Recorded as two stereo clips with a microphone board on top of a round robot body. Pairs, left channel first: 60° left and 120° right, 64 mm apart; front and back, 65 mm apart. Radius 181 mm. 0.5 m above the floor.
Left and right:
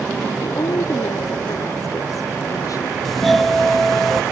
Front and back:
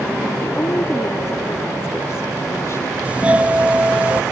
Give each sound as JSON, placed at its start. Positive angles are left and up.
{"t": 0.4, "sound": "a woman speaking", "azimuth_deg": 40}
{"t": 3.0, "sound": "a doorbell", "azimuth_deg": 145}